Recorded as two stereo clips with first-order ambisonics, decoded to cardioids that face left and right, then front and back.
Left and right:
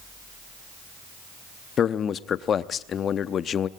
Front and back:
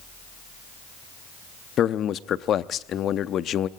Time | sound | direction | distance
1.8 | a man speaking | 40° left | 0.6 m